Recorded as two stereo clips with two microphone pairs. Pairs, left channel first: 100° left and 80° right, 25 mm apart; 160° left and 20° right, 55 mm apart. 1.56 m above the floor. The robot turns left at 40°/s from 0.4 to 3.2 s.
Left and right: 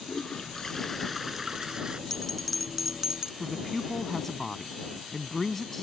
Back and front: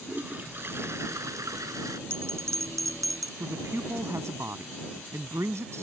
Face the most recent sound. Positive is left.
turn(degrees=15)